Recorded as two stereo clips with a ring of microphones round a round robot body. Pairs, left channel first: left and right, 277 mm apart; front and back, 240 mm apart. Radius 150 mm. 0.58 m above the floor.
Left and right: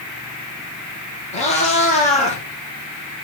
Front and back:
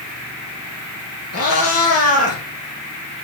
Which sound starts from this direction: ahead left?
A cat meowing, at 1.3 s.